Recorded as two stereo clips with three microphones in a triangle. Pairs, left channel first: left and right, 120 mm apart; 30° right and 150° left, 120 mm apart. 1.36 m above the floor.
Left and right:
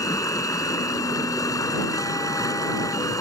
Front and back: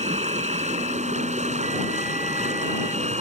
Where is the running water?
150° left.